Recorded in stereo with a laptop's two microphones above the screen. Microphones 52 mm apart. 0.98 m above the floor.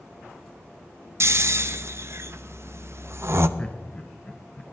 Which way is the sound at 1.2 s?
55° right (ahead or behind).